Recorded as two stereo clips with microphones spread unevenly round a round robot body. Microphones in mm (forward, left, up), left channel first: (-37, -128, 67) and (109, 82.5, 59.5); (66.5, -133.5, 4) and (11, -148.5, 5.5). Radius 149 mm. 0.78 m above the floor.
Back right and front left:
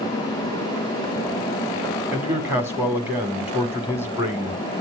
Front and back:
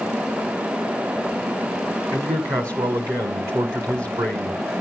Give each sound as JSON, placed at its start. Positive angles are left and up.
{"t": 2.1, "sound": "a man speaking", "azimuth_deg": 135, "distance_m": 2.0}